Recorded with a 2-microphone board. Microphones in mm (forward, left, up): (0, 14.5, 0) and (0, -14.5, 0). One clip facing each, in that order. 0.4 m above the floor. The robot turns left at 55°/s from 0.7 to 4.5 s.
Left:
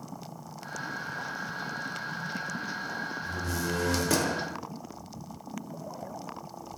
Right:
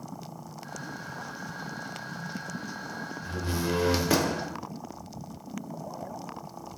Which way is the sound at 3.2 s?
105° right.